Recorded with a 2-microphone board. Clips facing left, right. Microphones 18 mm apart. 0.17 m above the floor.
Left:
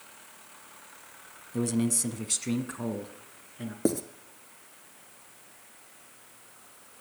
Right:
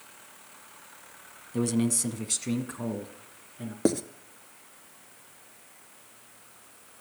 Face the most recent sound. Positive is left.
turn(degrees=-25)  # may be behind; listen again after turning